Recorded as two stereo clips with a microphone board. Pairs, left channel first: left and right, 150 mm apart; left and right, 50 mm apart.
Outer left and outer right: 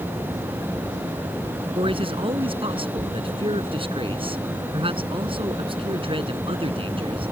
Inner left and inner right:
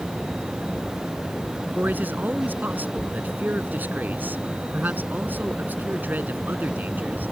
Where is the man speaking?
35° right (ahead or behind).